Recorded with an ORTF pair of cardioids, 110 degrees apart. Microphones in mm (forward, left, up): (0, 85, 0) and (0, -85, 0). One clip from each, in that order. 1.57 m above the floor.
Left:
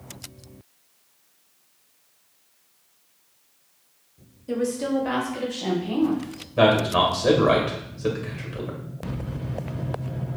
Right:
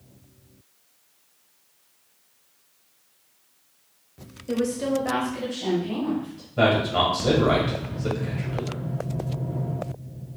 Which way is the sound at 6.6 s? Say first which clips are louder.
Left 2 dB; 30° left.